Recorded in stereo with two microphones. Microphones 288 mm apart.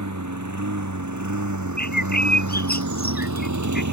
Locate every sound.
0.0 s a lawn mower: 80° right
1.8 s a bird: 30° left (ahead or behind)